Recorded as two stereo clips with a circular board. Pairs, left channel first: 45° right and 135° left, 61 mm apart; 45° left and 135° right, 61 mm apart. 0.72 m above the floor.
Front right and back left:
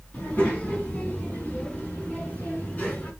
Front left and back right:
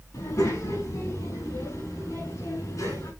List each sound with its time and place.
0.1 s a child speaking: 20° left, 5 m